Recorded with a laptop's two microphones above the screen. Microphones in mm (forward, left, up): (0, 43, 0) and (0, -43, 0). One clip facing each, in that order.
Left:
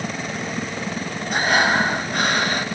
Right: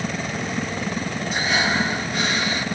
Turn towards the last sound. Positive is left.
turn(degrees=55)  # may be behind; listen again after turning